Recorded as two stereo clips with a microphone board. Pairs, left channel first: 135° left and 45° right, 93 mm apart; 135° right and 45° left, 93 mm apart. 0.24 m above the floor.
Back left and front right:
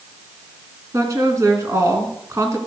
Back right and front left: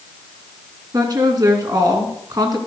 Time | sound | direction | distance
0.9 | a woman speaking | 5° left | 2.5 m